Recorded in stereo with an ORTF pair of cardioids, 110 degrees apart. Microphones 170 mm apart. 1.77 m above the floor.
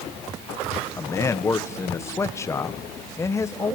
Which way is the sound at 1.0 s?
15° left.